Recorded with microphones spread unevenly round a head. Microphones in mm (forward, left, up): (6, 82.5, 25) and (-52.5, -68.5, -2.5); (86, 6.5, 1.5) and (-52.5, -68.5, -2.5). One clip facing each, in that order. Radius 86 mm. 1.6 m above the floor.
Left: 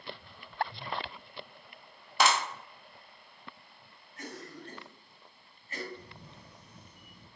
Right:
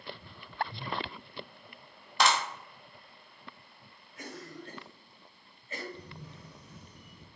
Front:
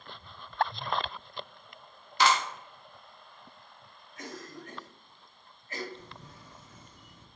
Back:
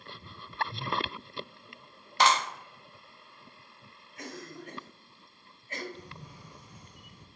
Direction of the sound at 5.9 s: 75° right.